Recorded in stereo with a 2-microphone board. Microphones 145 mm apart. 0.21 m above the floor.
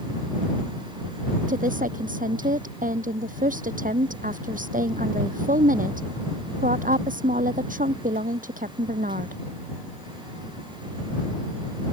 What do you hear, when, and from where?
1.5 s a woman speaking: 75° right (ahead or behind)